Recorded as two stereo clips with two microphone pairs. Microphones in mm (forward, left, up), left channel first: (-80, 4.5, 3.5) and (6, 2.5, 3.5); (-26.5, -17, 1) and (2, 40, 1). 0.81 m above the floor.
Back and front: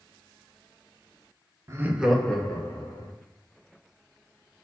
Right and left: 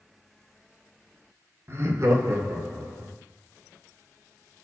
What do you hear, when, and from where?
1.7 s laughter: 40° left, 0.7 m; by 3.1 s 120° left, 1.8 m